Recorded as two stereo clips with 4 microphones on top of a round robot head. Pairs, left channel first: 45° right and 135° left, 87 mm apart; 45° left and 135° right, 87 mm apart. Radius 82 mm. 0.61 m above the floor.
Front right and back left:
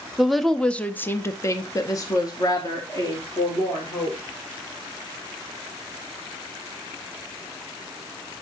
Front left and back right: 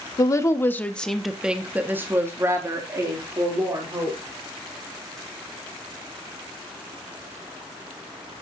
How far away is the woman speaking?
About 0.8 m.